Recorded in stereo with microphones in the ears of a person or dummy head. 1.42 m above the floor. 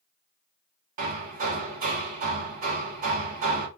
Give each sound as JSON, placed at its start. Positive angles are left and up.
{"t": 1.0, "sound": "hammering", "side_deg": -45, "distance_m": 1.1}